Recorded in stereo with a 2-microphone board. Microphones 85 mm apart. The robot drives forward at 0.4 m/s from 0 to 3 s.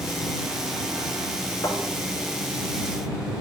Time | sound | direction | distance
1.6 | a thud | 40° left (ahead or behind) | 6 m